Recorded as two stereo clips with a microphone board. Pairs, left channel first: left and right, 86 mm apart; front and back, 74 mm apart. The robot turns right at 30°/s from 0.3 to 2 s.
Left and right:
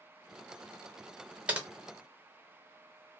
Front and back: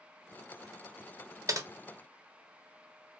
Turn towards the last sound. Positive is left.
turn(degrees=-145)